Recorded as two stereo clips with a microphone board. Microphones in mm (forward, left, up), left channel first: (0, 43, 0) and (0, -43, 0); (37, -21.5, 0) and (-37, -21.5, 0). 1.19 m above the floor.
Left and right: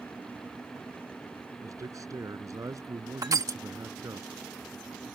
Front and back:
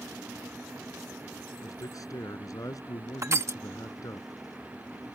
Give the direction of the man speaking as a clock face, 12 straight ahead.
1 o'clock.